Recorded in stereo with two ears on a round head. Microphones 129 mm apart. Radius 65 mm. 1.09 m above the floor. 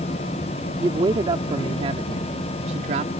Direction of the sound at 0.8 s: 30° right (ahead or behind).